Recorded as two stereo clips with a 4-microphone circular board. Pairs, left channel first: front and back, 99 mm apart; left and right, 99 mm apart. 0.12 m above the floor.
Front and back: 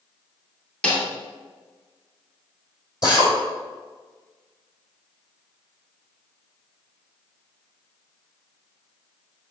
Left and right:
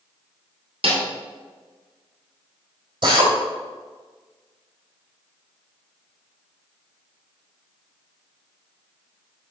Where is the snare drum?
80° right, 2 m.